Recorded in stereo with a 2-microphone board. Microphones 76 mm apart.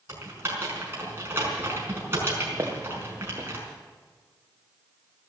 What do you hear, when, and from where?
0.1 s typing on a keyboard: 35° right (ahead or behind), 5 m
2.6 s footsteps: 40° right (ahead or behind), 3 m